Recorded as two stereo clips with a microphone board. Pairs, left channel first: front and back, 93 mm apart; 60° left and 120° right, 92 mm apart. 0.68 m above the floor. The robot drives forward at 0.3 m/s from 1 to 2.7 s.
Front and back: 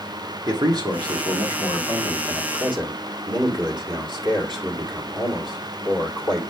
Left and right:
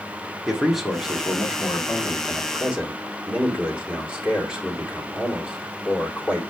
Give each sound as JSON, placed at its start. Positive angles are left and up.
{"t": 0.5, "sound": "a man speaking", "azimuth_deg": 155, "distance_m": 1.5}